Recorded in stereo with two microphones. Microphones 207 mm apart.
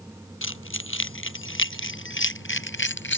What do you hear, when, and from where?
0.4 s keys jangling: 75° left (ahead or behind); by 3.2 s 65° left (ahead or behind)